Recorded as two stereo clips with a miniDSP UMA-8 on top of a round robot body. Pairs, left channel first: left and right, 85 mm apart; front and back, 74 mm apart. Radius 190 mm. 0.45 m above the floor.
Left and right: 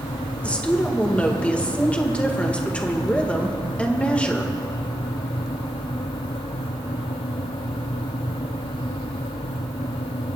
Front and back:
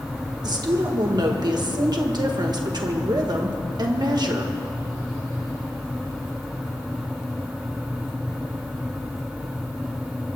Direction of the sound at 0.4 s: 165° left.